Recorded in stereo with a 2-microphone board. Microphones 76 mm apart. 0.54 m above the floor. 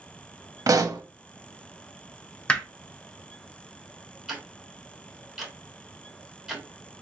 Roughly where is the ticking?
Centre.